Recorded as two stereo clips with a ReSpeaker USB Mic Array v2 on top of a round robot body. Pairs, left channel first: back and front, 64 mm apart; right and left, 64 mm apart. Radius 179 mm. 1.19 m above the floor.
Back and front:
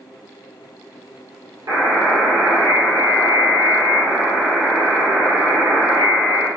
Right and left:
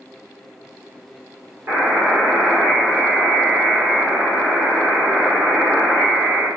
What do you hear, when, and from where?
1.7 s a buzzer: 30° left, 1.5 m